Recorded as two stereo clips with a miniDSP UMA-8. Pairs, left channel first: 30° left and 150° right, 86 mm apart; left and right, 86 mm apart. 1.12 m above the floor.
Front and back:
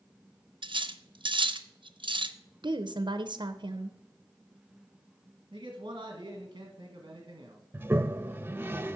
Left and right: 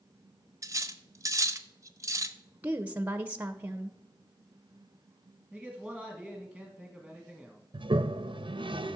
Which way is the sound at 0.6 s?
140° right.